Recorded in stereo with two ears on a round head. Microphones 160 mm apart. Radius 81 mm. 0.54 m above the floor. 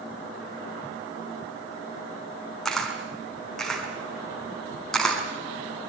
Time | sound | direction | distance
2.6 | a camera shutter | 5° left (ahead or behind) | 4.5 m